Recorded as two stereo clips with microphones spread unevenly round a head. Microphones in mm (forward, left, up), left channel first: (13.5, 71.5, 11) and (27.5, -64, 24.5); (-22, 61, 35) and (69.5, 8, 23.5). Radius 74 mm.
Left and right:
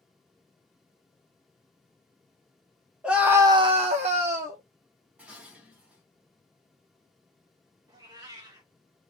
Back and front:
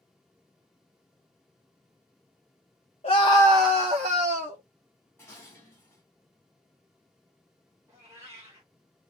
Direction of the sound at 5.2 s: 155° right.